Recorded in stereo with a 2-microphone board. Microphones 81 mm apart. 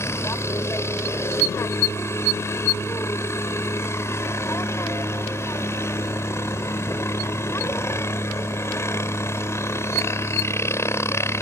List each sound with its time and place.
0.0 s a helicopter: 35° left (ahead or behind)